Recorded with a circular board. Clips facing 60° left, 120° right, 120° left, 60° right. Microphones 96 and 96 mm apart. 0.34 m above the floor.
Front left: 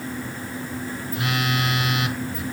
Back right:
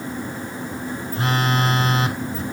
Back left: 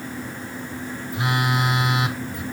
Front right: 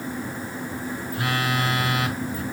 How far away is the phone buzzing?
About 0.8 m.